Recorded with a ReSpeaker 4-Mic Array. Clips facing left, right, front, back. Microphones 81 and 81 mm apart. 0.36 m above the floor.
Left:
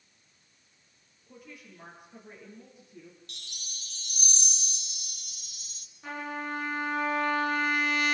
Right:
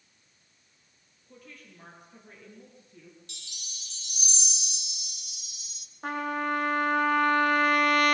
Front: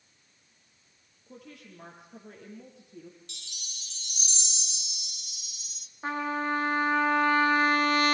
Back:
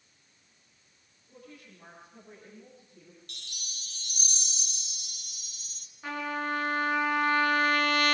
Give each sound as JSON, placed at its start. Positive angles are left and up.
{"t": 1.3, "sound": "a woman speaking", "azimuth_deg": 10, "distance_m": 7.0}
{"t": 3.3, "sound": "a chime", "azimuth_deg": 135, "distance_m": 1.9}
{"t": 6.0, "sound": "a trumpet", "azimuth_deg": -55, "distance_m": 3.0}